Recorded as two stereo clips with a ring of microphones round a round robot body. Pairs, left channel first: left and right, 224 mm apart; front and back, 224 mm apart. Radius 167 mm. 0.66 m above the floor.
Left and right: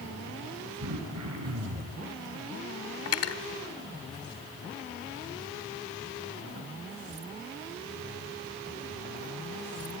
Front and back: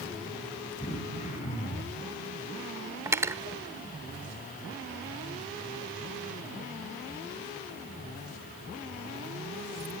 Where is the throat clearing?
70° right, 5 m.